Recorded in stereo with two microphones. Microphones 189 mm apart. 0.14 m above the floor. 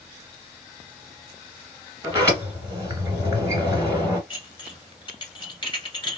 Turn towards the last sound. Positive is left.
turn(degrees=25)  # may be behind; listen again after turning